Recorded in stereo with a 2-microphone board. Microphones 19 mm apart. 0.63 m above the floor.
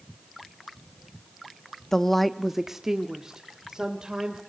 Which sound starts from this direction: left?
A woman speaking, at 1.9 s.